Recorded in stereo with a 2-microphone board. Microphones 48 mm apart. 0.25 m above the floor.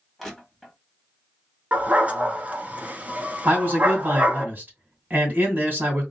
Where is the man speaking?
45° right (ahead or behind), 2.5 m.